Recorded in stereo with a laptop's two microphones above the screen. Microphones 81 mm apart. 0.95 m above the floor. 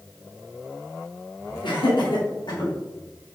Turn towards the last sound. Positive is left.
turn(degrees=70)  # may be behind; listen again after turning